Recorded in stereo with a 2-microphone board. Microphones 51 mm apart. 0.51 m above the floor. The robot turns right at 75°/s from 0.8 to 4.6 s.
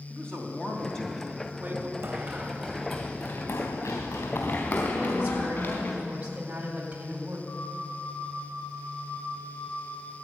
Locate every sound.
0.1 s a man speaking: 160° left, 3 m; by 1.9 s 115° right, 3 m
2.0 s running footsteps: 60° right (ahead or behind), 1.7 m; by 5.9 s 55° left (ahead or behind), 4 m
4.9 s a woman speaking: 30° right (ahead or behind), 3.5 m
7.5 s a flute: 60° left (ahead or behind), 4 m